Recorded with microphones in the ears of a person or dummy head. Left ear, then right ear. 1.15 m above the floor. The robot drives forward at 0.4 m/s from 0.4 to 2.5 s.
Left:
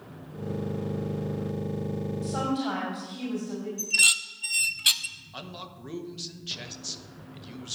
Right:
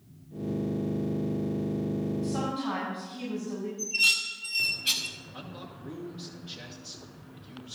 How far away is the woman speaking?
About 5.5 m.